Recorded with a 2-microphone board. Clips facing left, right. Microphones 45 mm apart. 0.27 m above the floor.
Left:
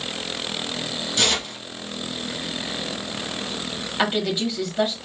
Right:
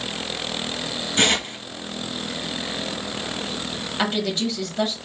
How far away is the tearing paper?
About 1.0 m.